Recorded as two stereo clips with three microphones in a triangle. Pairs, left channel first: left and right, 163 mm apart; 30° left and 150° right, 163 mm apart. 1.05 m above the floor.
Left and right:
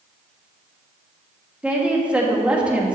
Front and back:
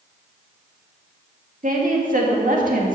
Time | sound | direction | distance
1.6 | a woman speaking | 170° right | 2 m